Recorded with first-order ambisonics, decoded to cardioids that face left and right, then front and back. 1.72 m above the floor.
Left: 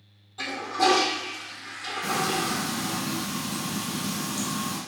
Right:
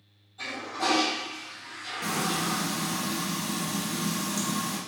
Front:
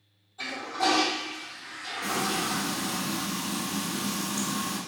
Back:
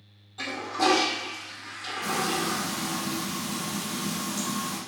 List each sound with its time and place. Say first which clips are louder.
0.4 s a toilet flushing: left 6 dB, back 2 dB; 145° left, 1.0 m
2.0 s frying: left 2 dB, back 1 dB; 115° right, 2.5 m